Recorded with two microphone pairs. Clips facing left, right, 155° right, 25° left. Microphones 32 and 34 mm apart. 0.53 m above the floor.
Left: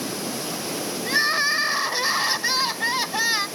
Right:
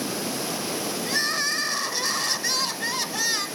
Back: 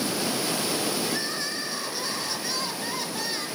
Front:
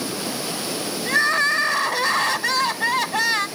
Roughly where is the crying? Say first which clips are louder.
Left 6 dB, front 11 dB; ahead left.